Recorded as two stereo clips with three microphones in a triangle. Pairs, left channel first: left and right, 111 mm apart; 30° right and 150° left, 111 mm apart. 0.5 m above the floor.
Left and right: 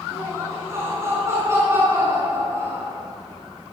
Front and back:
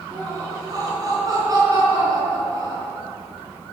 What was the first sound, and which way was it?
Laughter, 155° right.